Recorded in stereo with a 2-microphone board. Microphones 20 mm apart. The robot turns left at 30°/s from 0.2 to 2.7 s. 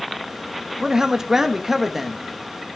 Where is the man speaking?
130° right, 1.1 m; by 2.2 s 170° right, 1.1 m.